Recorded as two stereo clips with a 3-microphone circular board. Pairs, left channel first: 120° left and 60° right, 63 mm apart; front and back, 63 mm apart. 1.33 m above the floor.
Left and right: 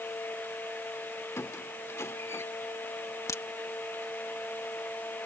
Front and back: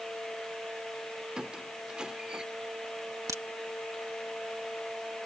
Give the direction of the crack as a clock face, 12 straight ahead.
7 o'clock.